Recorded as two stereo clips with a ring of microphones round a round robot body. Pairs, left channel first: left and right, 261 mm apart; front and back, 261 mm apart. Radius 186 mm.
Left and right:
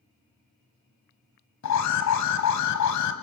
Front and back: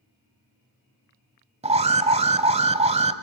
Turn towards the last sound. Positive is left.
turn(degrees=115)